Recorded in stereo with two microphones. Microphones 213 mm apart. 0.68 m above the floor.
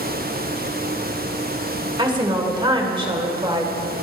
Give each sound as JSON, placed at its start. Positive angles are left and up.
{"t": 2.0, "sound": "a woman speaking", "side_deg": -25, "distance_m": 1.9}